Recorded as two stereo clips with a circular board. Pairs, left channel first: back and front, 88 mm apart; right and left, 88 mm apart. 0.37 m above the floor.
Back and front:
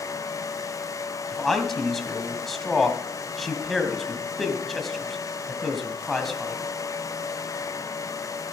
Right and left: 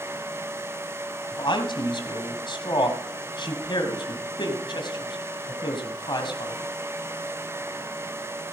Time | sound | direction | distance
1.3 | a man speaking | 90° right | 2 m